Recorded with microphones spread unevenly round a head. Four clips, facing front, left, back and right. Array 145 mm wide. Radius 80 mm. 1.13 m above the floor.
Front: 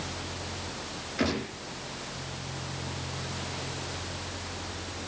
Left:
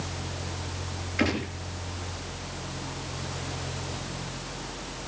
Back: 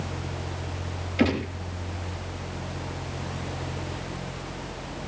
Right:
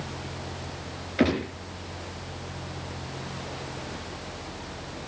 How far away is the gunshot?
About 4.5 m.